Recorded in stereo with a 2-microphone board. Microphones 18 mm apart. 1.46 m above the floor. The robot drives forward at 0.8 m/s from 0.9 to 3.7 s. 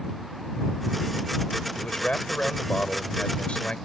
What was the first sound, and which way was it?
A man speaking, 75° left (ahead or behind).